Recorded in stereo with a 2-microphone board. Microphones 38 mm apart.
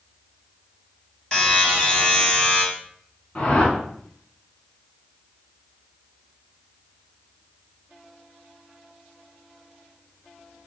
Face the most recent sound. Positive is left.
turn(degrees=35)  # may be behind; listen again after turning